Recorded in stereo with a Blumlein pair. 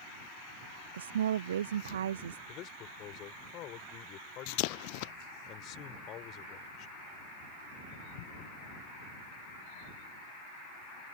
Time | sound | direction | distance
0.9 | a woman speaking | 65° right | ?
2.5 | a man speaking | 35° left | ?